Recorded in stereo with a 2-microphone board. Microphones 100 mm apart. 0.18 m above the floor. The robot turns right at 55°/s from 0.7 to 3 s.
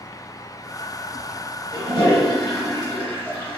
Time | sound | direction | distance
1.7 | a toilet flushing | 85° left | 1.7 m